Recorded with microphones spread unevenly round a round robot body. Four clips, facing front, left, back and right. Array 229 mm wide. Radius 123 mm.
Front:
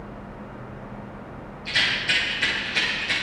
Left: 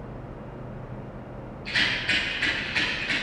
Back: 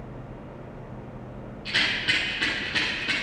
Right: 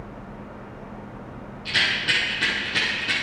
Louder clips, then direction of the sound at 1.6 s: Right 2 dB, front 1 dB; 150° right.